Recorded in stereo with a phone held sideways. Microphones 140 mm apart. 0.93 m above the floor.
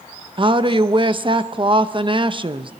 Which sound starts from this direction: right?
A woman speaking, at 0.4 s.